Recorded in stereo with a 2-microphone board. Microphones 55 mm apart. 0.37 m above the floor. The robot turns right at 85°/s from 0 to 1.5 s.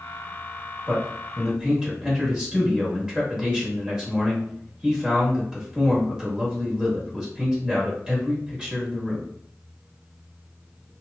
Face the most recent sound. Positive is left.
turn(degrees=-30)